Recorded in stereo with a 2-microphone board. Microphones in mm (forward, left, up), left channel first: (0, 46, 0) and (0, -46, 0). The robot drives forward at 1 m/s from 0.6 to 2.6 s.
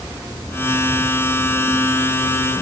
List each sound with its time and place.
Only background noise.